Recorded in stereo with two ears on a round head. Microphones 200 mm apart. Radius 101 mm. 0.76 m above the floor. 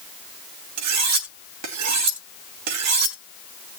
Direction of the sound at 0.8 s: 80° right.